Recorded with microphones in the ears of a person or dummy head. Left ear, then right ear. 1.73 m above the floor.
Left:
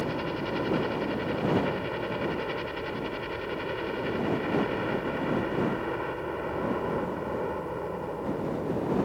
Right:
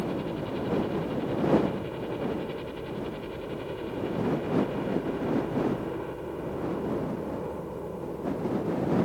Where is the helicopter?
55° left (ahead or behind).